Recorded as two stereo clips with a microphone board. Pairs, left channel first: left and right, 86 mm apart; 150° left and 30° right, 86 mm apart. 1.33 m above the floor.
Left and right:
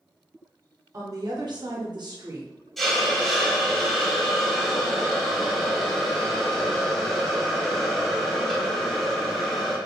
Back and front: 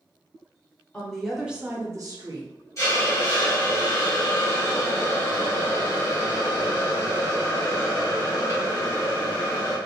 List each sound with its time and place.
0.9 s a woman speaking: 135° right, 1.0 m; by 2.5 s 45° right, 0.9 m
2.8 s a hiss: 175° left, 1.1 m